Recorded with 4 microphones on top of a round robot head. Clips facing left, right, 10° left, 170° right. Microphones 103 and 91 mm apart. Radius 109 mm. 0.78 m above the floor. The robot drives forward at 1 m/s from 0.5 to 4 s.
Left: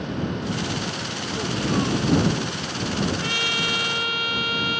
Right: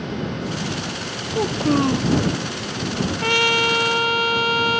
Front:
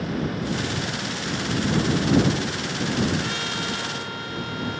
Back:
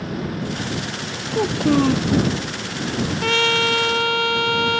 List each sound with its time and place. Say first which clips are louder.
1.3 s a child speaking: right 6 dB, back 8 dB; 145° right
3.2 s a trumpet: right 8 dB, back 9 dB; 135° right; by 4.8 s 145° right